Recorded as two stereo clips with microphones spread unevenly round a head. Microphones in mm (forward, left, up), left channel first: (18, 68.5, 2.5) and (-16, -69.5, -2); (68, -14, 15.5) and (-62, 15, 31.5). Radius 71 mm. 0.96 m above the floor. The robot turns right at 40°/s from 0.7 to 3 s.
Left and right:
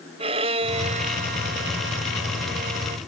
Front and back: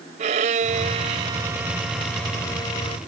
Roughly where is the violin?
Behind right.